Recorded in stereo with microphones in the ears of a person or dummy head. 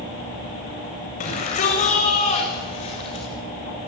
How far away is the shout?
About 7.5 m.